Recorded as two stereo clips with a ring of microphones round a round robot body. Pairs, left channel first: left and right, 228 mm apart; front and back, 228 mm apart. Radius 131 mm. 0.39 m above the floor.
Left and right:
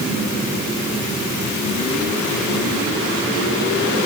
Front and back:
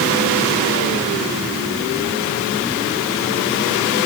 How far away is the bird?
No bird in this recording.